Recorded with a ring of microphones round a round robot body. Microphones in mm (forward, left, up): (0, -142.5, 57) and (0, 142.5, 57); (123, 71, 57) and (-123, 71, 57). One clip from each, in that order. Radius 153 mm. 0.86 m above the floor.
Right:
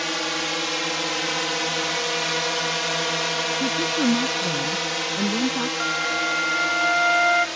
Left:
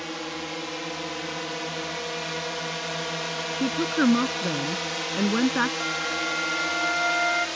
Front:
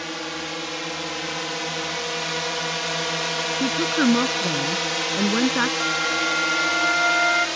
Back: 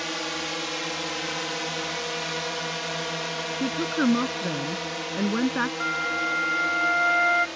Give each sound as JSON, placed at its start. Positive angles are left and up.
{"t": 0.0, "sound": "a drone", "azimuth_deg": -105}
{"t": 3.5, "sound": "a woman speaking", "azimuth_deg": 75}
{"t": 5.8, "sound": "a flute", "azimuth_deg": -95}